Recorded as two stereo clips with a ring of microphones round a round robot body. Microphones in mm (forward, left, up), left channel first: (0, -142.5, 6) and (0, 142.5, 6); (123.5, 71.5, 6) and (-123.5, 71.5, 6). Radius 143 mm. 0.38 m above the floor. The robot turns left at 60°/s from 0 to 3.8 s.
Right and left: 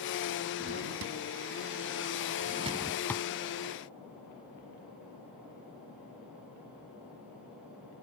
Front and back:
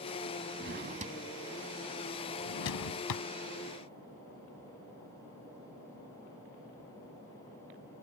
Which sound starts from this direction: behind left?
A drawer, at 0.6 s.